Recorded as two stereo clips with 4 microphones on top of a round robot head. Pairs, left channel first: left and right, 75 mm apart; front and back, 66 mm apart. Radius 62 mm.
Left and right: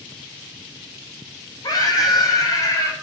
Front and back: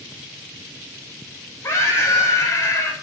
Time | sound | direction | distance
1.6 | a scream | 55° left | 6 m